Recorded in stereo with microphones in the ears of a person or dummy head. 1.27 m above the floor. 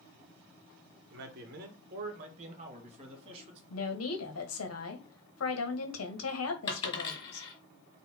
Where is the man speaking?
60° right (ahead or behind), 0.8 m; by 3.6 s 35° right (ahead or behind), 1.8 m.